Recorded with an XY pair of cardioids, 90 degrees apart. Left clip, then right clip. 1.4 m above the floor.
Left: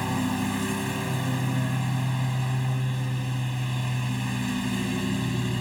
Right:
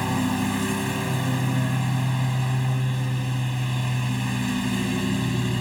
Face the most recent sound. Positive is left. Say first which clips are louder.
# right 3 dB
turn(degrees=-25)